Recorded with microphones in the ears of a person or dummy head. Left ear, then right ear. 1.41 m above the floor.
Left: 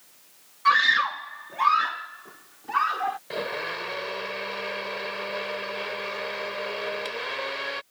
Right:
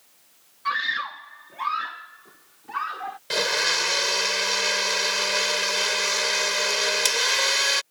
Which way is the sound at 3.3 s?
75° right (ahead or behind).